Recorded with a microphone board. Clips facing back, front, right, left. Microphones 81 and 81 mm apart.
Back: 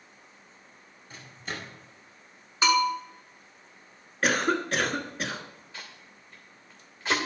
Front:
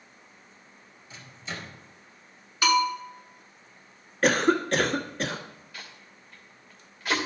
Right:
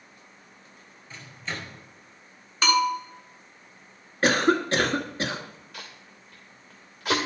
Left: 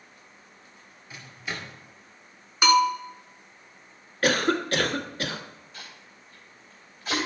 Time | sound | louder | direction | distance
1.1 | a microwave | back 1 dB, even | 165° left | 1.9 m
2.6 | a bell | even, left 3 dB | 150° left | 1.5 m
4.2 | a cough | front 3 dB, right 2 dB | 95° right | 1.3 m
5.7 | tape being pulled | even, right 2 dB | 115° right | 2.5 m